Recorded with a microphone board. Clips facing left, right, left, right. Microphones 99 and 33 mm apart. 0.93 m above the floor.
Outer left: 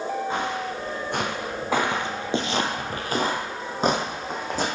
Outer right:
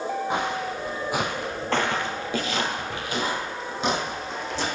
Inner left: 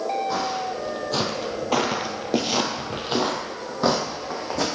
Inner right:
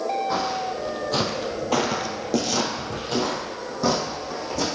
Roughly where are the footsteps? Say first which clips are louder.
Outer right 1 dB, inner right 1 dB; centre.